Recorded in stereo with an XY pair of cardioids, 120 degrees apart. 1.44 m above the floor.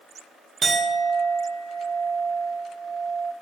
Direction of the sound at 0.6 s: 40° right.